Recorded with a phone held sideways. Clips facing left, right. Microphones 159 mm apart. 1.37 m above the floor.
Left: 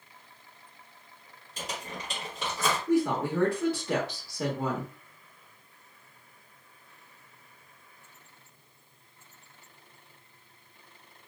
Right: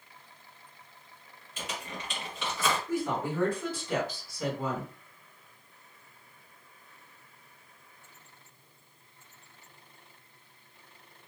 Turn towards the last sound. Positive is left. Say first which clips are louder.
# left 5 dB
turn(degrees=75)  # may be behind; listen again after turning